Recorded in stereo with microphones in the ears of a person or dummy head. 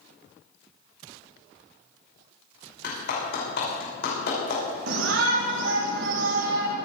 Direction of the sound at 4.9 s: 75° right (ahead or behind).